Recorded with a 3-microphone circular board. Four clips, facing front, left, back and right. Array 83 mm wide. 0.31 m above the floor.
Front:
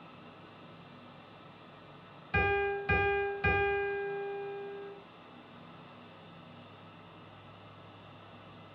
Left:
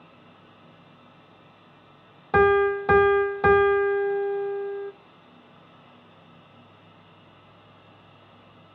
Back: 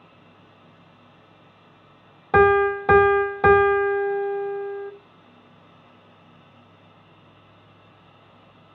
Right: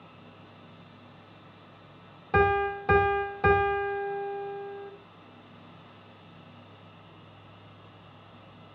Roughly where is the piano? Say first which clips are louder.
Left 6 dB, back 14 dB; behind.